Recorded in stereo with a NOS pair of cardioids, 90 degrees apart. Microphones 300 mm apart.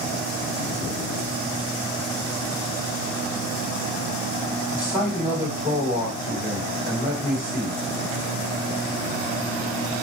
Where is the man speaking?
5° right, 2.5 m.